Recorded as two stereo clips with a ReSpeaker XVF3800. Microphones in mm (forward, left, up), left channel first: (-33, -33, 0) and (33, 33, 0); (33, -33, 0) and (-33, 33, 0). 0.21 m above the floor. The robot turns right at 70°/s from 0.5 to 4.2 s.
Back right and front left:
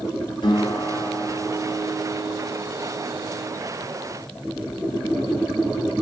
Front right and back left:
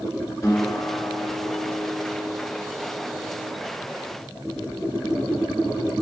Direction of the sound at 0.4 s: 110° right.